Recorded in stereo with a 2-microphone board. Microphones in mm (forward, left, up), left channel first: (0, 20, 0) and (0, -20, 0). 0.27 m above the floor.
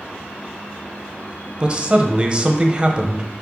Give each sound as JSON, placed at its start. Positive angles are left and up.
{"t": 1.6, "sound": "a man speaking", "side_deg": -25, "distance_m": 0.9}